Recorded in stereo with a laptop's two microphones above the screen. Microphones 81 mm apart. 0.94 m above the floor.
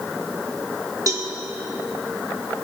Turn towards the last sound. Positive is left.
turn(degrees=-45)  # may be behind; listen again after turning